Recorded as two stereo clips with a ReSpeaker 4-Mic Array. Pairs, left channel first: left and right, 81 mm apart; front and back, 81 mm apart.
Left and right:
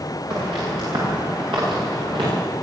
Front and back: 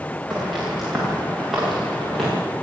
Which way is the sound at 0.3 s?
95° right.